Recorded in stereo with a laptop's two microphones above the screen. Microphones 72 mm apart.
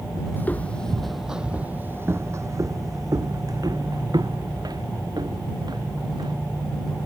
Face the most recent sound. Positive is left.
turn(degrees=-75)  # may be behind; listen again after turning